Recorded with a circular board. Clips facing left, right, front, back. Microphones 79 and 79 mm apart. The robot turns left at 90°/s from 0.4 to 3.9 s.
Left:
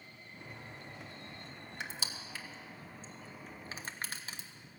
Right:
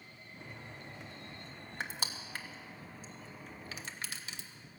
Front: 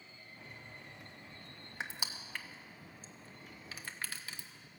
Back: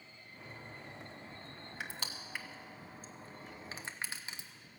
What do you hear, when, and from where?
1.8 s crushing: 55° right, 1.1 m; by 4.5 s 120° left, 1.1 m